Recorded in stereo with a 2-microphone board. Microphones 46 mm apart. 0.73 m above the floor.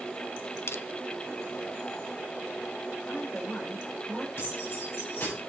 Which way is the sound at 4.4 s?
55° left (ahead or behind).